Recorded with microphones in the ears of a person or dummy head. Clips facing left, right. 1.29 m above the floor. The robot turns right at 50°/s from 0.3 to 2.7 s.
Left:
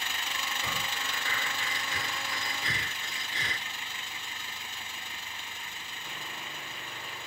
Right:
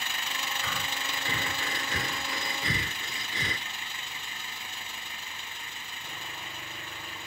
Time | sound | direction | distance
0.6 | breathing | 10° left (ahead or behind) | ?